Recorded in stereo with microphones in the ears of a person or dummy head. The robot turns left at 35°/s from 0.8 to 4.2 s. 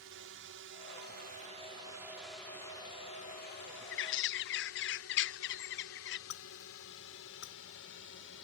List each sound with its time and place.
0.0 s a drone: 65° right (ahead or behind); by 8.4 s 65° left (ahead or behind)
3.9 s a bird: 60° left (ahead or behind)
6.3 s breaking glass: 55° left (ahead or behind)